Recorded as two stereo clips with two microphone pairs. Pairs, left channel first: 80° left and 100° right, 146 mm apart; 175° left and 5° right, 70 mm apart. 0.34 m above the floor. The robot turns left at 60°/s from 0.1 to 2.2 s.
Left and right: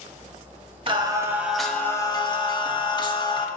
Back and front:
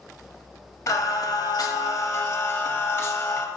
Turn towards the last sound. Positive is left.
turn(degrees=130)